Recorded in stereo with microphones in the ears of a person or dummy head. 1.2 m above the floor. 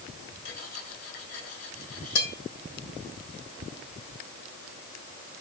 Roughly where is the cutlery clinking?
Left.